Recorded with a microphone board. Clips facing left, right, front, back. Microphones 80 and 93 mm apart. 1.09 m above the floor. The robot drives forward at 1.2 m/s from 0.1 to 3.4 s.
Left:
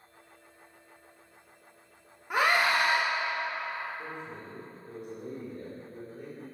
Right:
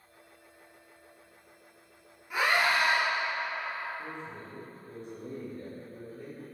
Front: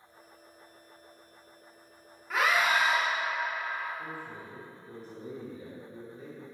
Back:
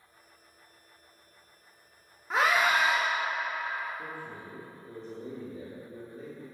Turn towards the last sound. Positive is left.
turn(degrees=160)